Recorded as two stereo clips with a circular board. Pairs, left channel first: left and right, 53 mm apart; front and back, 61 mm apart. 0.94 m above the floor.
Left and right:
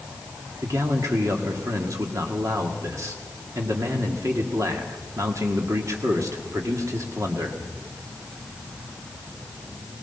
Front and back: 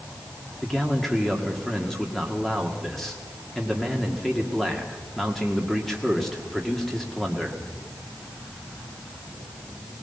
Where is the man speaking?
85° right, 1.9 m.